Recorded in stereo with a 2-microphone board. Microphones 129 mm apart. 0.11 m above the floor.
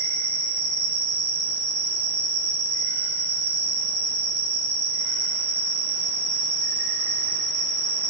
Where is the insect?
60° right (ahead or behind), 3 m.